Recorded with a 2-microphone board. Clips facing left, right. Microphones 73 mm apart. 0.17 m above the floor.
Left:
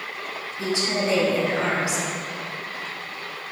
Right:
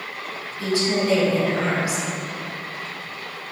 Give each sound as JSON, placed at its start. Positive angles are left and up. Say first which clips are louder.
{"t": 0.6, "sound": "a woman speaking", "louder": "right 3 dB", "side_deg": 20, "distance_m": 1.1}